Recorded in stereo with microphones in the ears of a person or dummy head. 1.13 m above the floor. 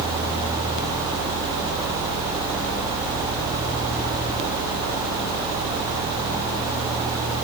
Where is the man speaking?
I don't hear a man speaking.